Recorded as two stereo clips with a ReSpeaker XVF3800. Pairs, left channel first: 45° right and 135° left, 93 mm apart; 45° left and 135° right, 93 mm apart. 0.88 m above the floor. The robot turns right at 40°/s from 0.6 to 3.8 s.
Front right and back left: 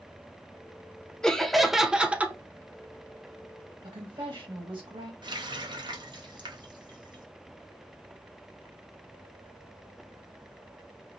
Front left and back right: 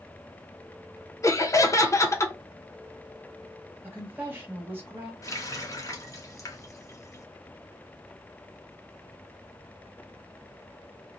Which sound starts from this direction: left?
A running tap, at 5.2 s.